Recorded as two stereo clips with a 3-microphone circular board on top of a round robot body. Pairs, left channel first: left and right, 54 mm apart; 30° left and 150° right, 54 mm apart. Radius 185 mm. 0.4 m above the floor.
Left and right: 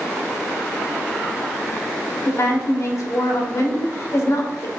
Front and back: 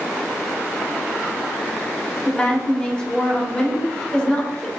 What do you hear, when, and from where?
2.2 s a woman speaking: 105° left, 2 m